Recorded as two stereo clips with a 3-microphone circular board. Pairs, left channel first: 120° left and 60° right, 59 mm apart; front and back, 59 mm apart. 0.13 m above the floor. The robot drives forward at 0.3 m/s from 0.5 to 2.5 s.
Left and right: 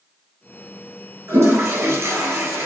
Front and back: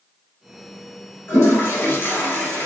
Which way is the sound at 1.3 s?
40° right.